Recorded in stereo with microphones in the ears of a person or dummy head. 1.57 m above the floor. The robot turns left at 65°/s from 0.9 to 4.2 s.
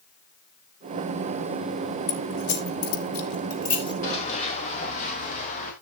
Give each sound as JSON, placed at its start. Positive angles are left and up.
{"t": 2.1, "sound": "keys jangling", "side_deg": 35, "distance_m": 3.5}
{"t": 4.0, "sound": "running footsteps", "side_deg": 40, "distance_m": 6.0}